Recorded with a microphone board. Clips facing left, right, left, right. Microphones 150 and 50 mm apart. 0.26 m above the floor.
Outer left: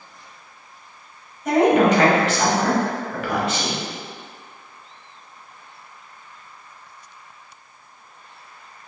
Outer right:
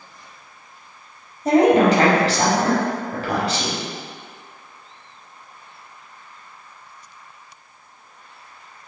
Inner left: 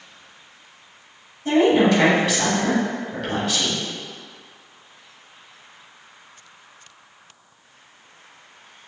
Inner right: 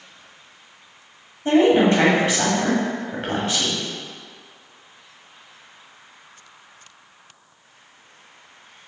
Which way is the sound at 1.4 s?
35° right (ahead or behind).